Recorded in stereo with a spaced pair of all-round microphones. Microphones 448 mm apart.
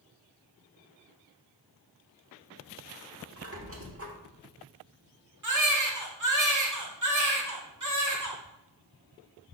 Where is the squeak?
30° right (ahead or behind), 1.2 m.